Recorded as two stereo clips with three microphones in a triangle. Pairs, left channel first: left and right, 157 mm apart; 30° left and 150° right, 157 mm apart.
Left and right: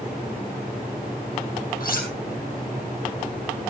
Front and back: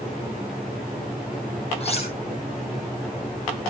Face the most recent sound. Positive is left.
turn(degrees=75)